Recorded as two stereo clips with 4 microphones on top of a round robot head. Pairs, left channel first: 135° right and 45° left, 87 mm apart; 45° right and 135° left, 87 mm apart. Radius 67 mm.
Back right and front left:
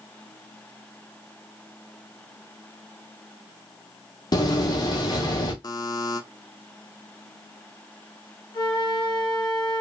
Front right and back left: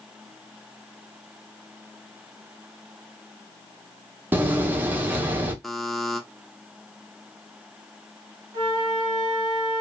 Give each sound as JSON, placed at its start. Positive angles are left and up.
{"t": 4.3, "sound": "a door slam", "azimuth_deg": -160, "distance_m": 0.9}
{"t": 5.6, "sound": "a buzzer", "azimuth_deg": -135, "distance_m": 0.6}
{"t": 8.5, "sound": "a flute", "azimuth_deg": 180, "distance_m": 1.2}